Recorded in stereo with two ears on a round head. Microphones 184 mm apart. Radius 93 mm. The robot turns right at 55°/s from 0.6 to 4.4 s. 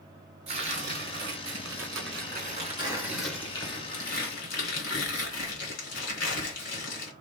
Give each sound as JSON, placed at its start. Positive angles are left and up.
{"t": 0.5, "sound": "tearing paper", "azimuth_deg": -145, "distance_m": 3.0}